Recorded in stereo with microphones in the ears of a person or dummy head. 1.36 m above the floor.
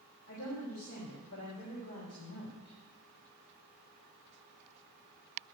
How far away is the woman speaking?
About 3.5 m.